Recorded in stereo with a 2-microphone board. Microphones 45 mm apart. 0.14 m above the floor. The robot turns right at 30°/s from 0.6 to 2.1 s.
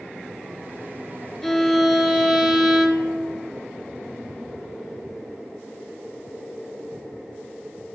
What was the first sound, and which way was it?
A violin, 5° left (ahead or behind).